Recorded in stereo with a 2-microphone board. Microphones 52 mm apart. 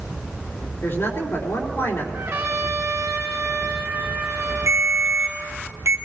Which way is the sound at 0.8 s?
45° left (ahead or behind).